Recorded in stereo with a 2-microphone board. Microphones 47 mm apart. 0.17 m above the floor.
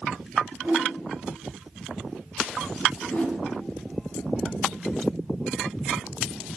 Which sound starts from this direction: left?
A whoosh, at 3.0 s.